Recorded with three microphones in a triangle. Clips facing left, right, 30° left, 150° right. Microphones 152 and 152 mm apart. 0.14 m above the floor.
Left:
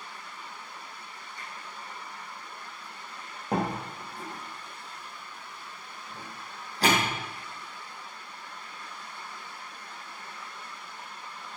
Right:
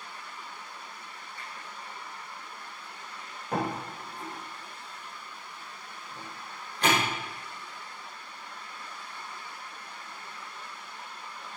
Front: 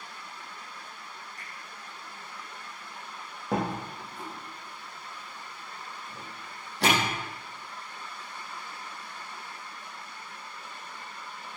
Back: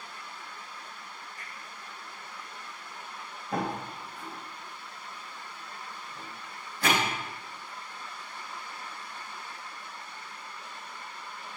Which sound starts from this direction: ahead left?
A door slam, at 3.5 s.